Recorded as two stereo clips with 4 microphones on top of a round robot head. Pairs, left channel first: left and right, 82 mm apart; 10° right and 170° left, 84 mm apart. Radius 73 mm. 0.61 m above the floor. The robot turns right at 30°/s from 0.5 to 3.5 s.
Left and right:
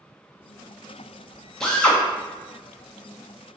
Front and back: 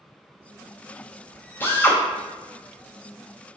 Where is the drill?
15° left, 0.7 m; by 2.0 s 30° left, 0.7 m.